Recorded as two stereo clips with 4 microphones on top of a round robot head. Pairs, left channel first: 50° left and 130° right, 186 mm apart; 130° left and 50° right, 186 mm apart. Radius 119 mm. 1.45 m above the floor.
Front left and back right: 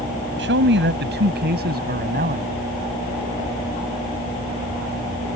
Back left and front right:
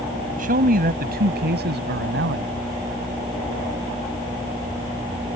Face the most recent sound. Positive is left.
turn(degrees=-85)